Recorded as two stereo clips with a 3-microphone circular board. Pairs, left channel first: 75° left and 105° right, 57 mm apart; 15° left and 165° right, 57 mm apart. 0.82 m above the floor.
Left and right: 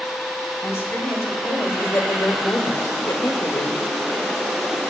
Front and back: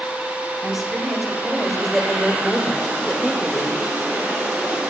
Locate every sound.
0.6 s a woman speaking: 110° left, 4.5 m; by 3.8 s 80° left, 2.5 m